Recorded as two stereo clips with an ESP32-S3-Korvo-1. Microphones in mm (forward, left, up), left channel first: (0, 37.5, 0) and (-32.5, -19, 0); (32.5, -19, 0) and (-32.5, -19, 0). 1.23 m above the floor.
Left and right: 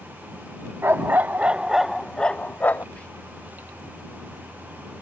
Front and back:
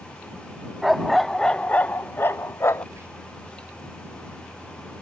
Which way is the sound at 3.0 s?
130° left.